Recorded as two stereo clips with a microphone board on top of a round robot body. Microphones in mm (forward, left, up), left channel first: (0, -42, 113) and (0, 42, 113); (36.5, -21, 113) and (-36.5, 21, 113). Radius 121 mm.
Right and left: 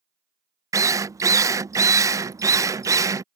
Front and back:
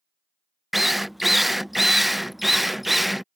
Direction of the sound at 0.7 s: 60° left.